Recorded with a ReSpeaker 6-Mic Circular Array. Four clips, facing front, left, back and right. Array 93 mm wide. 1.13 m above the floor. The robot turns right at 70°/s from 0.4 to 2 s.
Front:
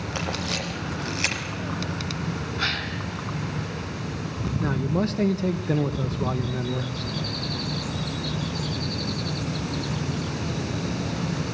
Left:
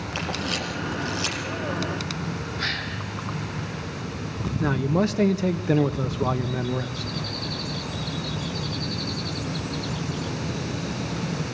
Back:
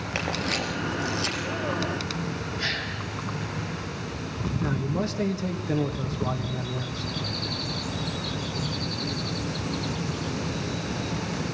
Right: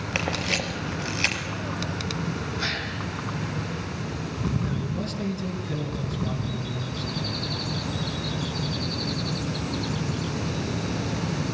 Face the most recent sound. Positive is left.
turn(degrees=75)